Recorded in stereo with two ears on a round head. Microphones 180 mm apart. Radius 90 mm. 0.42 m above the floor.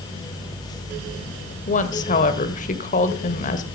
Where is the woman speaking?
35° left (ahead or behind), 1.4 m.